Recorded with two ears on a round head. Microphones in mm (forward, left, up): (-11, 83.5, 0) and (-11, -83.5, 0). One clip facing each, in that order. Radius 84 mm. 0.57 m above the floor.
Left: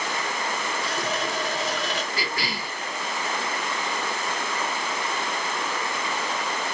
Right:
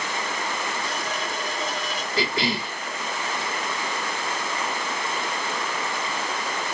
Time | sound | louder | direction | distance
0.8 | a running tap | left 2 dB | 55° left (ahead or behind) | 0.7 m
2.2 | a cough | right 5 dB | 20° right (ahead or behind) | 0.9 m